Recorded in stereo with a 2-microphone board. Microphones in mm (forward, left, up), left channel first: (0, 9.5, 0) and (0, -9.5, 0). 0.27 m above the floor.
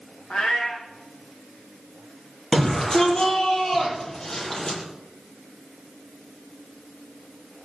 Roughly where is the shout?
Left.